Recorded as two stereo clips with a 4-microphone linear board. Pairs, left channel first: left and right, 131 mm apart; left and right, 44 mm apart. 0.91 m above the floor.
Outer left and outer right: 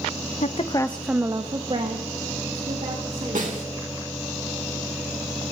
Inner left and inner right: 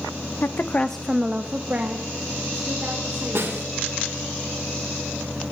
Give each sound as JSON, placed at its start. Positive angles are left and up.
{"t": 0.4, "sound": "a woman speaking", "side_deg": 60, "distance_m": 0.6}
{"t": 3.4, "sound": "a snare drum", "side_deg": -75, "distance_m": 3.0}